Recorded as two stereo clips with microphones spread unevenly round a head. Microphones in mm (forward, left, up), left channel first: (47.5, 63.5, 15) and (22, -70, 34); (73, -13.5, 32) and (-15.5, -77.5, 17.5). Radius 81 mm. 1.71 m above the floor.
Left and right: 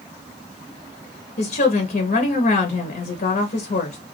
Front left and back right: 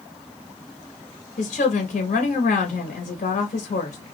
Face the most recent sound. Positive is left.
turn(degrees=50)